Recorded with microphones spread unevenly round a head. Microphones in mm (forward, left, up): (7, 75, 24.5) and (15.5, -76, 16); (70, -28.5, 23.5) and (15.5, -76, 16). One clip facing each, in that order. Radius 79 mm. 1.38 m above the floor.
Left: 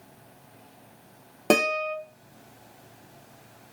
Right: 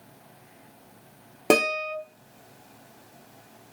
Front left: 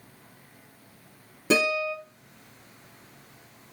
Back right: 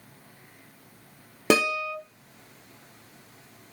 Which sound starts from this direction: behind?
A guitar, at 1.5 s.